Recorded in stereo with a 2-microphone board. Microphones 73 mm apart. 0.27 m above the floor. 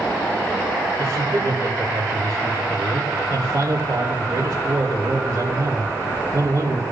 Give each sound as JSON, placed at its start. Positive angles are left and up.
{"t": 1.0, "sound": "a man speaking", "side_deg": -40, "distance_m": 2.0}